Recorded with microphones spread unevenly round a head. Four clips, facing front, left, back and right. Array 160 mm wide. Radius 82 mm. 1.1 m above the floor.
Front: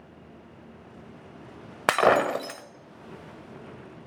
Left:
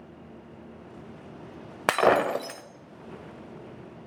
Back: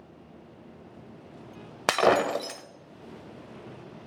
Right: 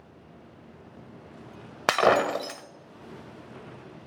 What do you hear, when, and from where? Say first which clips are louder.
1.9 s breaking glass: even, front 2 dB; 100° left, 0.9 m